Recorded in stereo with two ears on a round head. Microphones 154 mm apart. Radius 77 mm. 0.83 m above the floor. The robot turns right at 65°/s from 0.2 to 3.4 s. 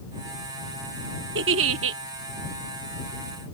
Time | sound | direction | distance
1.4 | a giggle | 110° right | ?